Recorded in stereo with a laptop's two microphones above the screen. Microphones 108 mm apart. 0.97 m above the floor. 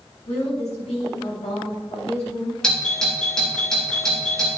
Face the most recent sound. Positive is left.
turn(degrees=10)  # may be behind; listen again after turning